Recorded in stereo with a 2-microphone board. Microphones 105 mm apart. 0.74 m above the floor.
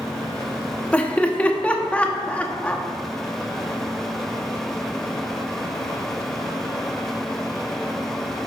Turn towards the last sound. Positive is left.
turn(degrees=15)  # may be behind; listen again after turning